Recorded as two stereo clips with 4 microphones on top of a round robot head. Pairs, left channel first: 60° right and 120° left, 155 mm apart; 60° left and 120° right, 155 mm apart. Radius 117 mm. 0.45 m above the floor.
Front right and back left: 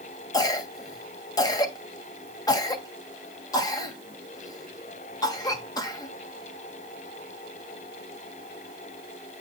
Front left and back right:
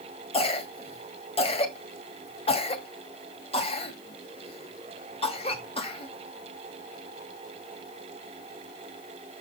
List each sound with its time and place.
0.3 s a cough: 5° left, 2 m